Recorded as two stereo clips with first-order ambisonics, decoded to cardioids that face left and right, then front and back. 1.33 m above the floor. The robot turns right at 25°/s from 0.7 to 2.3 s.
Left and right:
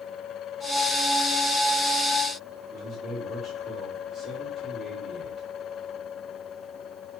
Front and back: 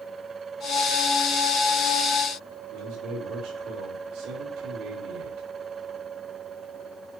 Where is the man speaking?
155° right, 5 m.